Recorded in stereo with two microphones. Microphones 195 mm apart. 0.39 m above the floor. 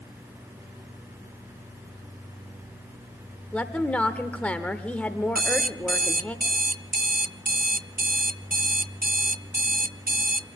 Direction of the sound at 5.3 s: 45° right (ahead or behind).